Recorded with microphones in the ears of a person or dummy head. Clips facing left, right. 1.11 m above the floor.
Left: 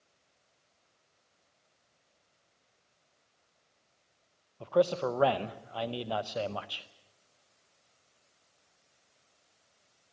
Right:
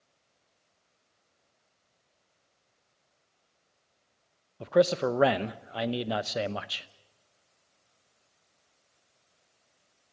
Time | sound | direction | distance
4.6 | a man speaking | 25° right (ahead or behind) | 0.8 m